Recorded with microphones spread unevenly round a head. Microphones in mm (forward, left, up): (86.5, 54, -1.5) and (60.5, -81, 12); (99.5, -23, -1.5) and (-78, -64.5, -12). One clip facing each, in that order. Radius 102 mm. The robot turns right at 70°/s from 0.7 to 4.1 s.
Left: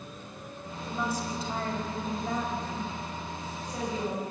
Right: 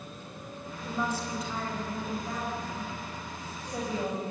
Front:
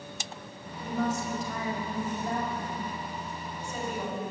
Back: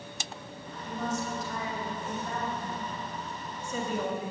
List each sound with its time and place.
0.8 s a woman speaking: 20° right, 5.5 m; by 4.3 s 150° right, 5.5 m